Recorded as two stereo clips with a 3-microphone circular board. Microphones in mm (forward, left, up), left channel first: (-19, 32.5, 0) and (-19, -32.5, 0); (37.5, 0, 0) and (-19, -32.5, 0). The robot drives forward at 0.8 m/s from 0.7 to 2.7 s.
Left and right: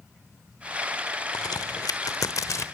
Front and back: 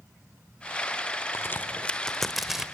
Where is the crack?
75° left, 1.1 m; by 2.6 s 130° left, 1.3 m.